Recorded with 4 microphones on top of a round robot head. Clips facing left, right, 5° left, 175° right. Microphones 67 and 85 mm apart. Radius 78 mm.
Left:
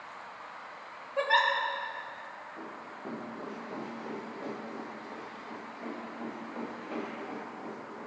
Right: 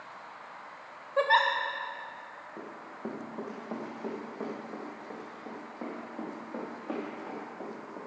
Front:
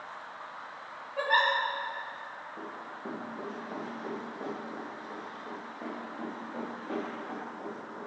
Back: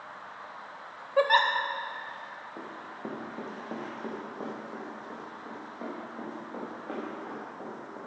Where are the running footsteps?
145° right, 3 m; by 8.0 s 120° right, 5.5 m.